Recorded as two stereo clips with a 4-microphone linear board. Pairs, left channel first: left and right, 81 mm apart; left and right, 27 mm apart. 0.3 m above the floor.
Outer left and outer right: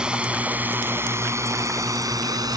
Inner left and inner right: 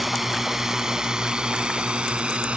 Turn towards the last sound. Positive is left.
turn(degrees=-55)  # may be behind; listen again after turning